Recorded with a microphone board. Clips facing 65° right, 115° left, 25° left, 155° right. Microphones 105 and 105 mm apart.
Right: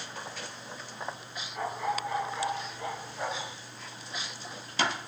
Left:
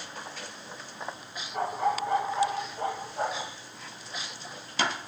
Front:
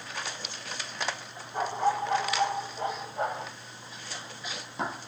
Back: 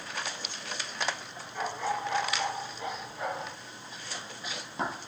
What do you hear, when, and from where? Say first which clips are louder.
1.5 s a dog barking: left 4 dB, front 5 dB; 70° left, 7.5 m; by 3.5 s 60° left, 9 m